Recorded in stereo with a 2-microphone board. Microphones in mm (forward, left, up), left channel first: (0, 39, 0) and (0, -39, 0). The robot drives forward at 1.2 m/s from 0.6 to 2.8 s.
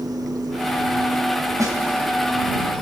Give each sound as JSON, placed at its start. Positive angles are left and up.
{"t": 1.6, "sound": "a snare drum", "side_deg": -45, "distance_m": 3.0}